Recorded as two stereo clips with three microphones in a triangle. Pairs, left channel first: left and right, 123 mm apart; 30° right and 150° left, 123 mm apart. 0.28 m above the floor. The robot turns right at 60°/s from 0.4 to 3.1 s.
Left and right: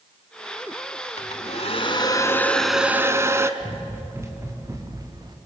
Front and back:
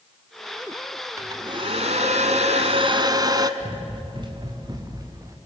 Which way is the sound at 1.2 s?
90° left.